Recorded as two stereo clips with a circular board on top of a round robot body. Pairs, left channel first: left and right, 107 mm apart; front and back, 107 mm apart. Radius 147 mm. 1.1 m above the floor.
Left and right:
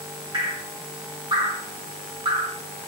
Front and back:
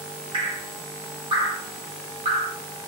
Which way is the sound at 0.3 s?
140° right.